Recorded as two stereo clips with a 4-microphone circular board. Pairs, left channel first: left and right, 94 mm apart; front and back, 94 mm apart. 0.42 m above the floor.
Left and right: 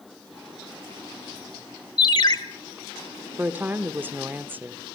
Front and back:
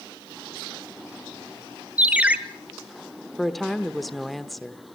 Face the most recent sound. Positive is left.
turn(degrees=-85)